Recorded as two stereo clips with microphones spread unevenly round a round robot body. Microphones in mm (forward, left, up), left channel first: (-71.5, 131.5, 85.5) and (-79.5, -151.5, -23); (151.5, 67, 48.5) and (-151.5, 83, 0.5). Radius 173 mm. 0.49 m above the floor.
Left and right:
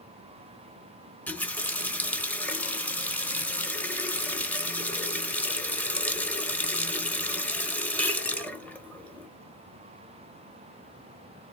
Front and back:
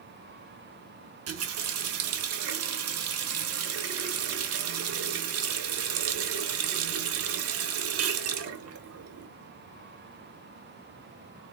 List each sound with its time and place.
1.3 s a running tap: 170° right, 0.6 m